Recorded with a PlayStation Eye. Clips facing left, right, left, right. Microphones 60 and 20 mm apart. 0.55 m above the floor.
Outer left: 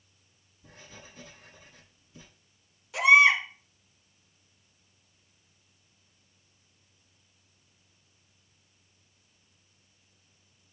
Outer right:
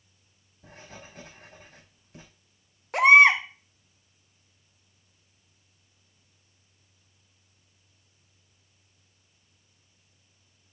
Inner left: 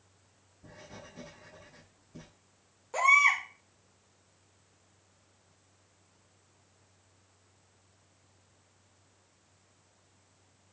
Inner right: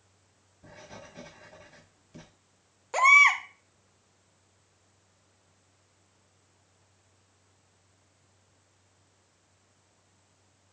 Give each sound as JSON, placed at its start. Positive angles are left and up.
{"t": 0.6, "sound": "writing", "side_deg": -60, "distance_m": 4.5}
{"t": 2.9, "sound": "a baby crying", "side_deg": -45, "distance_m": 1.0}